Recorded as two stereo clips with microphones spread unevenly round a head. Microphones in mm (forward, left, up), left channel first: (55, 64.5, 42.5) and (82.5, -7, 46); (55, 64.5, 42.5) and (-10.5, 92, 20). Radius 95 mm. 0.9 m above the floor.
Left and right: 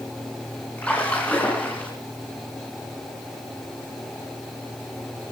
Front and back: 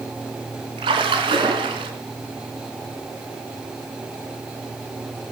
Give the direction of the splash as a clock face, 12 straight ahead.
6 o'clock.